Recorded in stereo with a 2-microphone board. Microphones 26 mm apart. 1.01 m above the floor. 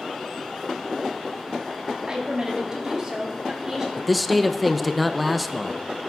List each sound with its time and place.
2.1 s a woman speaking: 35° right (ahead or behind), 1.9 m; by 3.9 s 20° right (ahead or behind), 3 m
4.0 s a man speaking: centre (ahead or behind), 0.5 m